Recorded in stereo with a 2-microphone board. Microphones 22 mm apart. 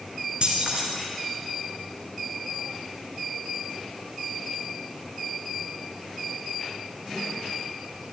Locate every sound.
0.4 s keys jangling: 50° right (ahead or behind), 2 m